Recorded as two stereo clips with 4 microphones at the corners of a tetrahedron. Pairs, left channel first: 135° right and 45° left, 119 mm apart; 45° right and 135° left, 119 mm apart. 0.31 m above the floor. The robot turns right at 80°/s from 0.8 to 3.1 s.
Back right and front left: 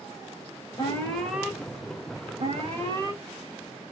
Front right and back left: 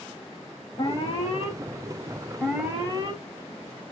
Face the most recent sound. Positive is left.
turn(degrees=95)